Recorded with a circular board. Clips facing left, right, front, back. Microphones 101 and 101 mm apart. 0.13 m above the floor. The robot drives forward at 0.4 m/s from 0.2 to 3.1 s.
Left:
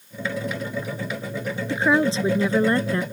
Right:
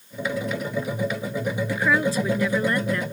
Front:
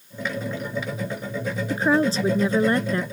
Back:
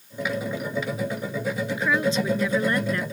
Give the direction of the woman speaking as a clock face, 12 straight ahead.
11 o'clock.